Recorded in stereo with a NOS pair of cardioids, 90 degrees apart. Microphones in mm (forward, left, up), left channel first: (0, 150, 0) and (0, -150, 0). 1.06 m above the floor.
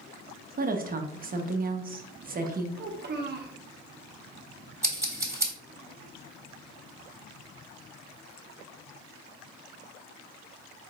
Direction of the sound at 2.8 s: 35° right.